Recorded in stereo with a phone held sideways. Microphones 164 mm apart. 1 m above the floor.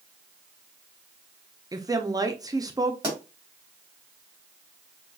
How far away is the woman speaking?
About 0.6 m.